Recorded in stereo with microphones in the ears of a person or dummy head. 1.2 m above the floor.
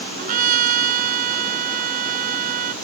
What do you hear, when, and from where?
0.2 s a trumpet: 50° right (ahead or behind)